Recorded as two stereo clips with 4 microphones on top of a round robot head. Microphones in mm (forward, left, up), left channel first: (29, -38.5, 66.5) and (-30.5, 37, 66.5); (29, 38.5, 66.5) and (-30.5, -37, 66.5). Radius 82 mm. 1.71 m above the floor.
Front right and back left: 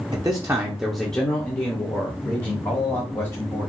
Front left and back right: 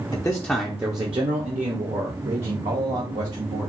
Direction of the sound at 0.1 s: 90° left.